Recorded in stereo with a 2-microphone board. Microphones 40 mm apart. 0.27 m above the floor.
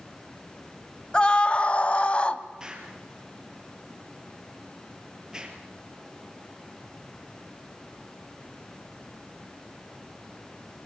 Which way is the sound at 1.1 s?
25° left (ahead or behind).